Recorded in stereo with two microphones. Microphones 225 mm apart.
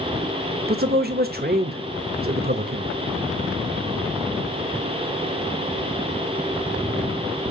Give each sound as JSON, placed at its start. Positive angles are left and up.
{"t": 0.7, "sound": "a man speaking", "side_deg": -45, "distance_m": 0.9}